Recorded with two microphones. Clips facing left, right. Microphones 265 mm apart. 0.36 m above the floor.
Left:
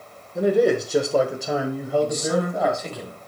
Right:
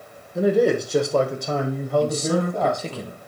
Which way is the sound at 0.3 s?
5° right (ahead or behind).